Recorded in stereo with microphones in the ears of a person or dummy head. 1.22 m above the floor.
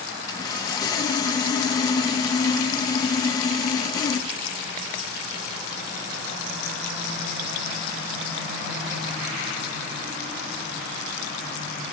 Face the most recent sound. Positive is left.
turn(degrees=15)  # may be behind; listen again after turning